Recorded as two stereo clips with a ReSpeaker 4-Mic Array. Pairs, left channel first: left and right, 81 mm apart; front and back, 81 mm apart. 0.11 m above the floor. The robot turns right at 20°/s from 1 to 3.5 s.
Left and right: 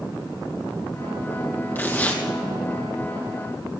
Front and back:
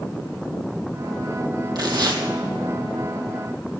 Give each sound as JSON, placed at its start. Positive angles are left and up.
{"t": 1.8, "sound": "tearing paper", "azimuth_deg": 155, "distance_m": 2.0}